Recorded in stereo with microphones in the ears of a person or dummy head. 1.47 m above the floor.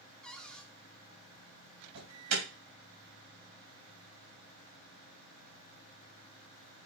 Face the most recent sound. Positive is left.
turn(degrees=-80)